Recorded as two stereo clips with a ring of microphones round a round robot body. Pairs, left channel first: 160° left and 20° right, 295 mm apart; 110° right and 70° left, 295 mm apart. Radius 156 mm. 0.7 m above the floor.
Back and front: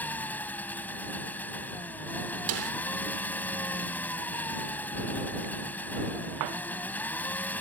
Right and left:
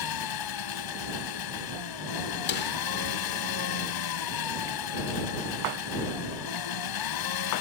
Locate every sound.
0.0 s an engine running: 120° right
2.5 s a snare drum: 60° right